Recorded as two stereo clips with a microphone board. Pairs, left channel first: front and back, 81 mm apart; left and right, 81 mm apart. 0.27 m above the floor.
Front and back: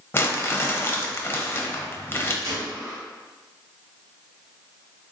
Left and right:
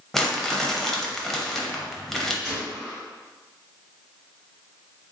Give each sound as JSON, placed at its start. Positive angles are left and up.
{"t": 0.1, "sound": "crumpling", "azimuth_deg": 10, "distance_m": 0.5}
{"t": 2.4, "sound": "a gunshot", "azimuth_deg": 175, "distance_m": 1.8}